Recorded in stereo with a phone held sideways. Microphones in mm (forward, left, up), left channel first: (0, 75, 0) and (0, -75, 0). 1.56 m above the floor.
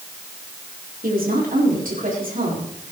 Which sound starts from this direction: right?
A woman speaking, at 1.0 s.